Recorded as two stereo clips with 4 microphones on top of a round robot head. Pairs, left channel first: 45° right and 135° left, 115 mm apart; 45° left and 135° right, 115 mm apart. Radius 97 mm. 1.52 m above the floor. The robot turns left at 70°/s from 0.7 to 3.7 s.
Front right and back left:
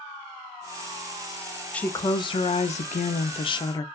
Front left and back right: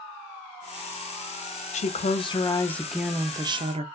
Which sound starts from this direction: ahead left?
A woman speaking, at 1.7 s.